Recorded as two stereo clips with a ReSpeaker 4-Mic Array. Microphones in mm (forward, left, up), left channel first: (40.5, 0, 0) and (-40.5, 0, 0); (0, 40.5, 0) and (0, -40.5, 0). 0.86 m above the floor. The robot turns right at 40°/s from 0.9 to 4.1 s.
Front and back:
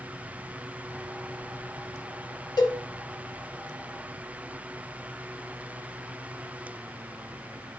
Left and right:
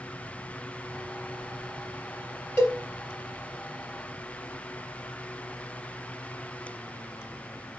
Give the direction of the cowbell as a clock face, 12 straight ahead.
11 o'clock.